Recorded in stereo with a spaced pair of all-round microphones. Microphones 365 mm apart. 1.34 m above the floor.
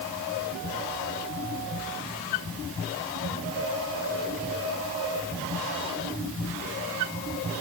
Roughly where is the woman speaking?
No woman speaking in this recording.